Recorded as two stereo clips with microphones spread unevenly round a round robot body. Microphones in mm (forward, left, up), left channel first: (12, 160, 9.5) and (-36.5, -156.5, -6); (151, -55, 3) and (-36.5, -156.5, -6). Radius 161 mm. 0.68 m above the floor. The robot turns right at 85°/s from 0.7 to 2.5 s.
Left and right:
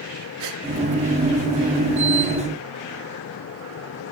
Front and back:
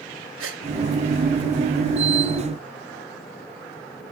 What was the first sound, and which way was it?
A gasp, 135° right.